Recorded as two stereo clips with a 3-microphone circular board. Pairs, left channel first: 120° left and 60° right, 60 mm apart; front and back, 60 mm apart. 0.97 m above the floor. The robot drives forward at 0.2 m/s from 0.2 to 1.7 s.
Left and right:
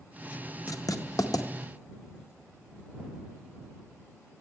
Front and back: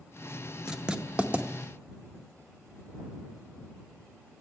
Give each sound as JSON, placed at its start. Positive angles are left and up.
{"t": 0.7, "sound": "writing", "azimuth_deg": 100, "distance_m": 0.7}